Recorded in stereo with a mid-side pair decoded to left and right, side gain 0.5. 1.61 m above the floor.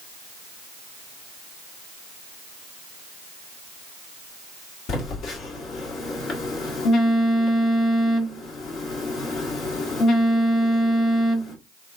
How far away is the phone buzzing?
About 1.5 m.